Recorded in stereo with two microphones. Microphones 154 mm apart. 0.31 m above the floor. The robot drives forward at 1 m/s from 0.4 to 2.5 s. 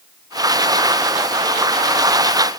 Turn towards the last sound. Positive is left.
No sound to turn to.